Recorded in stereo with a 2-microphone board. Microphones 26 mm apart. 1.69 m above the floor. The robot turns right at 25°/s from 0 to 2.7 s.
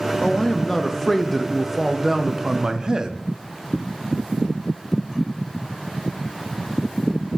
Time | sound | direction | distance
0.2 | a man speaking | 145° left | 0.6 m